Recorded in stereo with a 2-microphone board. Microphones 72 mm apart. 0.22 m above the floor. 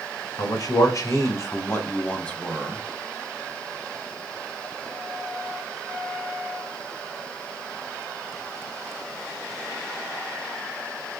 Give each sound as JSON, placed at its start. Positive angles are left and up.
{"t": 0.4, "sound": "a man speaking", "side_deg": 55, "distance_m": 1.6}